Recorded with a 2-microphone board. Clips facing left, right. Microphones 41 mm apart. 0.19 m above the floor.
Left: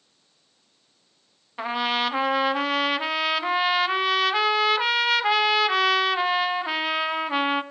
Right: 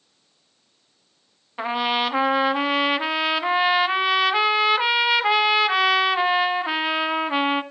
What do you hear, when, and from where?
1.6 s a trumpet: 10° right (ahead or behind), 1.0 m